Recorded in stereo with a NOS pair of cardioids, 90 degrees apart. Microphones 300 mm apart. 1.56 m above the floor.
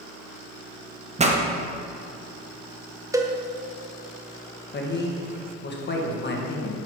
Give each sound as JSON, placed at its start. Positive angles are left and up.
{"t": 1.2, "sound": "a pop", "azimuth_deg": -20, "distance_m": 1.3}
{"t": 3.1, "sound": "a cowbell", "azimuth_deg": -10, "distance_m": 0.9}
{"t": 4.7, "sound": "a man speaking", "azimuth_deg": 35, "distance_m": 1.9}